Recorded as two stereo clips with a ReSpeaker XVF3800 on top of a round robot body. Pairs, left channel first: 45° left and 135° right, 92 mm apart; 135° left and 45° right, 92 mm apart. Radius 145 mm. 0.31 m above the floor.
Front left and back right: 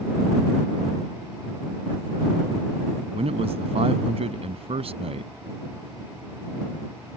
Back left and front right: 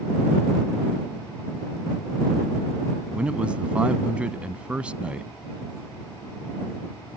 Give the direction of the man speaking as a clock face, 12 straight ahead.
4 o'clock.